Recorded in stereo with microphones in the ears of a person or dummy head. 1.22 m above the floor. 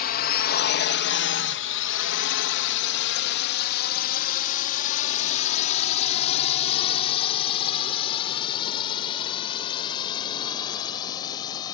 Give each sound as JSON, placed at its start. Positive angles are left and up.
{"t": 0.0, "sound": "a drone", "side_deg": 50}